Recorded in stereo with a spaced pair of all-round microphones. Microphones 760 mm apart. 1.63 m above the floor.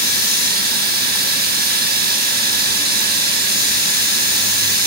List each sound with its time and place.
0.0 s running water: 10° right (ahead or behind), 1.2 m